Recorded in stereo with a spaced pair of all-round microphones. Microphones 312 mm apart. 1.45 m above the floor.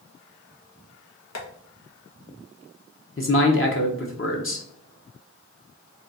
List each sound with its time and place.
1.4 s tapping: 60° left (ahead or behind), 1.0 m
3.2 s a man speaking: 45° left (ahead or behind), 0.7 m